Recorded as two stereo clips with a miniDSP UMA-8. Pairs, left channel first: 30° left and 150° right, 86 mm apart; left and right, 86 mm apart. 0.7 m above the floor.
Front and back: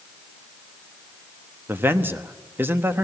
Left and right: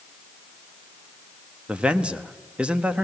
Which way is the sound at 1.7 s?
150° right.